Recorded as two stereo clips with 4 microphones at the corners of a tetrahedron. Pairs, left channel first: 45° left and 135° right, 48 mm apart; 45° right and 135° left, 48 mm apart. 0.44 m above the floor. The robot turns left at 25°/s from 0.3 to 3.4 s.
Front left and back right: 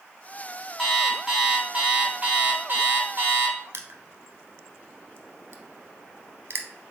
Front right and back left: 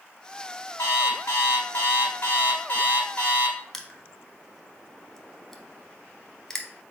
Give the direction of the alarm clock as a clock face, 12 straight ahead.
1 o'clock.